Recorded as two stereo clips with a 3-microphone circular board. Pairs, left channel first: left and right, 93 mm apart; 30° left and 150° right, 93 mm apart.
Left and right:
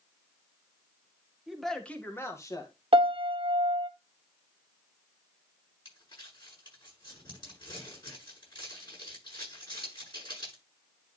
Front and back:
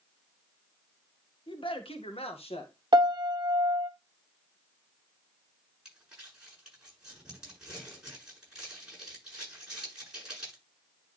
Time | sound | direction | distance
1.5 | a man speaking | 5° right | 1.6 m
2.9 | a piano | 110° right | 1.1 m
5.8 | crumpling | 130° left | 8 m